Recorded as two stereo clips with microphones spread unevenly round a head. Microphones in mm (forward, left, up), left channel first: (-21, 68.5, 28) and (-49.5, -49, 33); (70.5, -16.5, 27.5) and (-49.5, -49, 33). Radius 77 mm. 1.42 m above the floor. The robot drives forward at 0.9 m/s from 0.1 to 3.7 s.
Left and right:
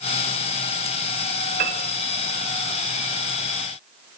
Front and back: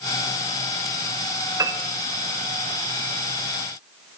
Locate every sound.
1.6 s a piano: 100° right, 0.5 m; by 1.8 s 120° right, 0.6 m